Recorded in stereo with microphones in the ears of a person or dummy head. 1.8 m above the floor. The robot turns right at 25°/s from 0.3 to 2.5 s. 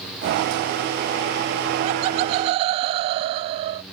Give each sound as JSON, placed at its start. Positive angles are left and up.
{"t": 1.8, "sound": "laughter", "side_deg": -25}